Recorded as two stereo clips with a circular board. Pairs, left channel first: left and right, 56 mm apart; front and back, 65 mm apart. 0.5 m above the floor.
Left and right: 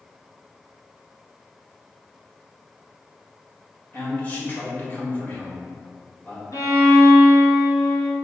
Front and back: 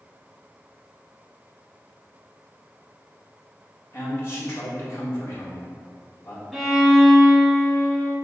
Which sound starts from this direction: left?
A violin, at 6.5 s.